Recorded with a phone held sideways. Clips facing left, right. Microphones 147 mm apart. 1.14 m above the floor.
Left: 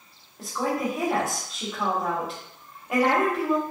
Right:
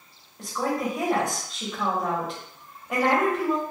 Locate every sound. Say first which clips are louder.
0.4 s a woman speaking: even; centre (ahead or behind), 0.9 m